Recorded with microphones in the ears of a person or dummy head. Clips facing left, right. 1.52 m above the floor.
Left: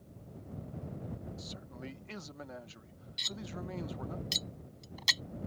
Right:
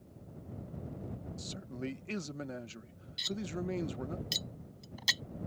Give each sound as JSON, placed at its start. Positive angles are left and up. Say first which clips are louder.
{"t": 1.4, "sound": "a man speaking", "louder": "right 5 dB", "side_deg": -35}
{"t": 3.2, "sound": "cutlery clinking", "louder": "right 6 dB", "side_deg": -5}